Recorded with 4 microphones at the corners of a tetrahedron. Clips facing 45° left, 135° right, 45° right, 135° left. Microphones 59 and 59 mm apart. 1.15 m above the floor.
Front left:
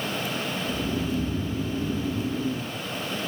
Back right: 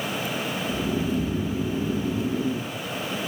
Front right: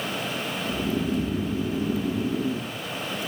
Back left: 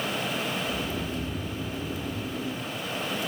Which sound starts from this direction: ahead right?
Snoring, at 0.7 s.